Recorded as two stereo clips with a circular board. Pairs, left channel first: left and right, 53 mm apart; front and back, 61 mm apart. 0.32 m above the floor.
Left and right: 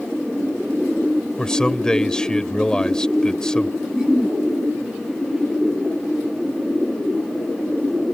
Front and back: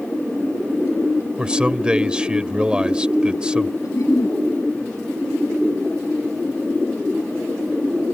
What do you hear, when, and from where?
1.4 s a man speaking: 135° left
3.8 s a giggle: 10° right